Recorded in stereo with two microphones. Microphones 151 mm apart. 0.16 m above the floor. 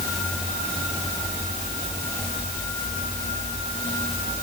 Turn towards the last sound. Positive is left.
No sound to turn to.